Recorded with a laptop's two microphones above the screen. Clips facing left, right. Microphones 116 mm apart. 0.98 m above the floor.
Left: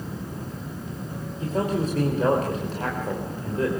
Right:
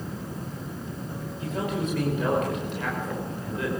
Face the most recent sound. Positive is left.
turn(degrees=40)  # may be behind; listen again after turning